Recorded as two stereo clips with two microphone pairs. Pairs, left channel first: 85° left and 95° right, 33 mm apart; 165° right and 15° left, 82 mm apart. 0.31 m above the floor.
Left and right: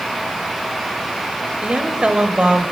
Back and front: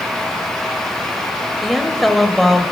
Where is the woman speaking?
80° right, 1.2 m.